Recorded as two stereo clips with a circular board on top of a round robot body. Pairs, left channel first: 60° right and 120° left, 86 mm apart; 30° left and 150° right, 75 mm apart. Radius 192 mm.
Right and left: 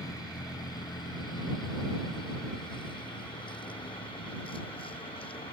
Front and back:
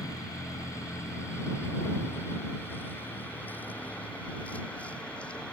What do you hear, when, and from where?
0.0 s a vehicle: 15° right; by 5.5 s 45° right